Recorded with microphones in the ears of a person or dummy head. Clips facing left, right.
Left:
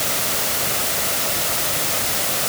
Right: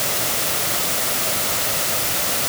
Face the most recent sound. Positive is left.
No sound to turn to.